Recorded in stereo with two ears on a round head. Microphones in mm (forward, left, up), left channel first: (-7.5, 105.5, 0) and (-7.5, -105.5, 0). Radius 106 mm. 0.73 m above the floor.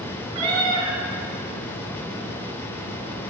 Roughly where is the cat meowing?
Right.